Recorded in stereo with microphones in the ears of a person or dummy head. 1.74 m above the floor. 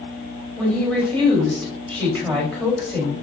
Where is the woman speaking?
10° left (ahead or behind), 3.5 m.